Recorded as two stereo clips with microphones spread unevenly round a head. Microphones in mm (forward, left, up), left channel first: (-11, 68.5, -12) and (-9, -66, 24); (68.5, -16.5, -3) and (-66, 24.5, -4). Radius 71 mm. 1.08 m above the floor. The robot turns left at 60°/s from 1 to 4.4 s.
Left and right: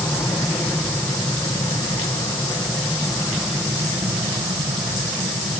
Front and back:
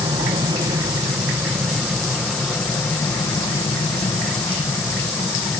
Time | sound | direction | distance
0.0 | an aircraft | 145° left | ?